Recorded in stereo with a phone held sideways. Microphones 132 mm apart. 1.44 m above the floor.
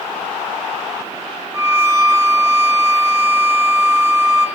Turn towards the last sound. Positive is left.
turn(degrees=-15)  # may be behind; listen again after turning